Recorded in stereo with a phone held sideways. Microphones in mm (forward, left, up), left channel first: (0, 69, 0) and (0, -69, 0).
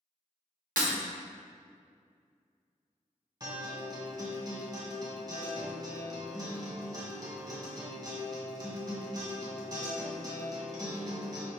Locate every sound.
0.8 s breaking glass: 75° right (ahead or behind), 1.1 m
3.4 s a guitar: 30° right (ahead or behind), 1.6 m